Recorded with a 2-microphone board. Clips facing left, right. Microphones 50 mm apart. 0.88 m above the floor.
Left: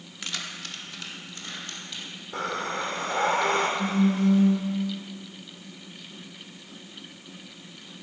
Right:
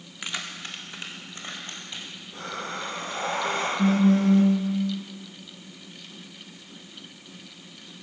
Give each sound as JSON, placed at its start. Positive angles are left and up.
{"t": 0.2, "sound": "keys jangling", "side_deg": -20, "distance_m": 1.0}
{"t": 2.3, "sound": "breathing", "side_deg": 75, "distance_m": 2.5}
{"t": 3.8, "sound": "a phone buzzing", "side_deg": -65, "distance_m": 1.3}